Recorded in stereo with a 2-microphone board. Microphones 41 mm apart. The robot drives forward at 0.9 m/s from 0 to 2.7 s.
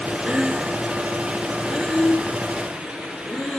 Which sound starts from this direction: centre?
Breathing, at 0.3 s.